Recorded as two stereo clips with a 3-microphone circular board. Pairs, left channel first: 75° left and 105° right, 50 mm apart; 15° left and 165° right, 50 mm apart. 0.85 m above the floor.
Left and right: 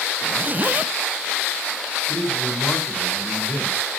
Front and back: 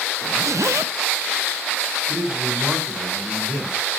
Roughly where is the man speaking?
Behind left.